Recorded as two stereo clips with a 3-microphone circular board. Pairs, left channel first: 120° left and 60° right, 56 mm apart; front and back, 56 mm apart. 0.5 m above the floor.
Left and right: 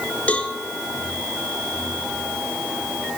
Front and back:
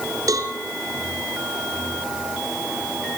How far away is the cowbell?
About 3 m.